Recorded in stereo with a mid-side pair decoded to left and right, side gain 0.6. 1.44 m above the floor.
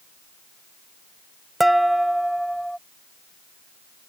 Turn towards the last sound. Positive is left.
turn(degrees=-5)